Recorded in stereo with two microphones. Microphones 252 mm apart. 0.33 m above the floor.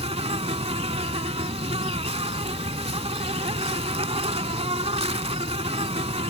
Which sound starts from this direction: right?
An insect, at 0.0 s.